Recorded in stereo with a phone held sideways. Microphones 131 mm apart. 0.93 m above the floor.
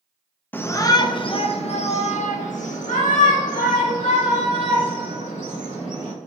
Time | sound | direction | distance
0.5 | a shout | 15° left (ahead or behind) | 0.8 m